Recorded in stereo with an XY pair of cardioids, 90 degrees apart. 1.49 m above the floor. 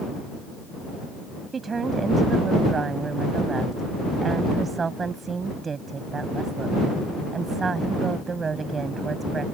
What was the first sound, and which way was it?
A woman speaking, 40° right.